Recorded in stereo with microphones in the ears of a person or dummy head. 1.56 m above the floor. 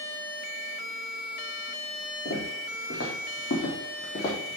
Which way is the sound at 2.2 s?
70° left (ahead or behind).